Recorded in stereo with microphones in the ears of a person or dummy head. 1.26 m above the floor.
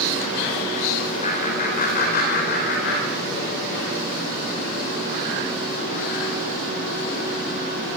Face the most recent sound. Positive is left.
turn(degrees=60)  # may be behind; listen again after turning